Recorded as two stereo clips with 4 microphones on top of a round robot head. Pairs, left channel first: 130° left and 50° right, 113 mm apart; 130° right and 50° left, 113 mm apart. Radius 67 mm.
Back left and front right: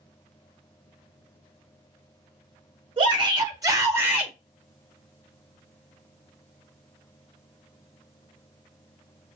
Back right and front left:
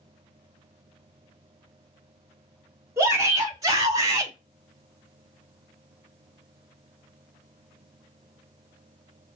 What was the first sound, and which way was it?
A shout, 10° right.